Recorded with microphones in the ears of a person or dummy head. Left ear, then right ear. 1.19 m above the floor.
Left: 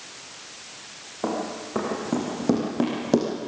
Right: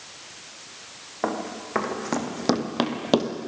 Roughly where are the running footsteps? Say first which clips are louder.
Even; right.